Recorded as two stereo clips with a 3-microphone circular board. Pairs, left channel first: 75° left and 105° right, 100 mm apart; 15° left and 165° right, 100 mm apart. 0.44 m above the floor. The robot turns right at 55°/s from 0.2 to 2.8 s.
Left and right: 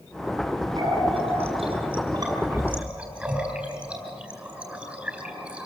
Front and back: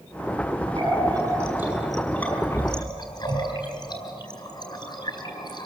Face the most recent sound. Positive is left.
turn(degrees=-25)